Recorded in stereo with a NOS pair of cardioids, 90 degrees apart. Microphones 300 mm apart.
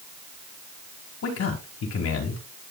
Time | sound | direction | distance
1.2 | a man speaking | 55° left | 5 m